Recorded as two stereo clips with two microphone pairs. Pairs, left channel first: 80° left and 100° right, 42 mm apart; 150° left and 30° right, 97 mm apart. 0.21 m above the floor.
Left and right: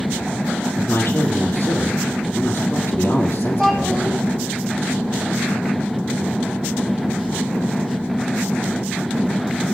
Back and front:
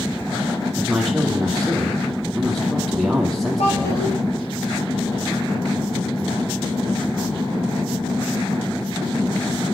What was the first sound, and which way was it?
A man speaking, 65° left.